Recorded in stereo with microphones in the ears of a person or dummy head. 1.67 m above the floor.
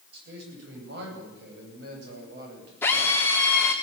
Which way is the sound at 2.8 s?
10° left (ahead or behind).